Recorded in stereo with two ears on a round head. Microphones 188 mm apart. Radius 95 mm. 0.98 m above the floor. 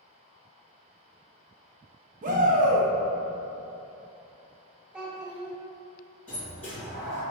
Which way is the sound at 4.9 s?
5° right (ahead or behind).